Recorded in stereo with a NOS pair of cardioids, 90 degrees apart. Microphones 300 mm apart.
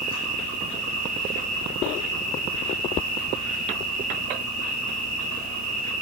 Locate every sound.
0.0 s an insect: 65° right, 7 m